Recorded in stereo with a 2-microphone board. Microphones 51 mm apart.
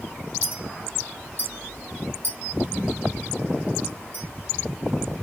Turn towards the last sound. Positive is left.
turn(degrees=-55)  # may be behind; listen again after turning